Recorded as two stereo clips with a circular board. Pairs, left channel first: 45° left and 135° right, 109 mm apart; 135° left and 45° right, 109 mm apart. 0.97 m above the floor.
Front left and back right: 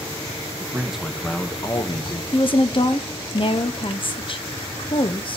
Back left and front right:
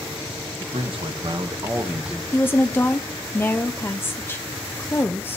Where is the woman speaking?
70° left, 0.7 m.